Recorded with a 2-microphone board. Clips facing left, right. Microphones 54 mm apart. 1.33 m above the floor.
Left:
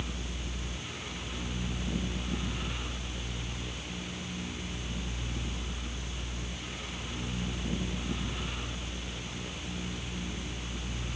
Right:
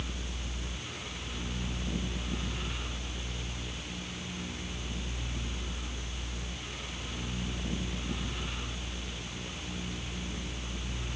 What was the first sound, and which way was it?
Only background noise.